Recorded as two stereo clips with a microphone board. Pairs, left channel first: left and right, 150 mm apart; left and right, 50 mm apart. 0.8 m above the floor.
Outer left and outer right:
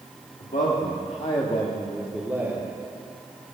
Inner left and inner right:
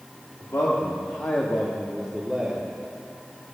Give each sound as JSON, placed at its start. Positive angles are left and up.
{"t": 0.4, "sound": "a man speaking", "side_deg": 75, "distance_m": 1.5}